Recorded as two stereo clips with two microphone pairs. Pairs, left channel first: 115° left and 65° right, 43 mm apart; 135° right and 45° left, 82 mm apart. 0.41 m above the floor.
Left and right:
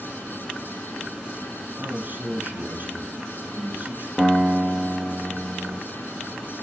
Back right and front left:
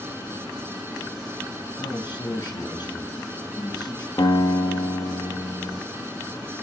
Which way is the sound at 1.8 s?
110° right.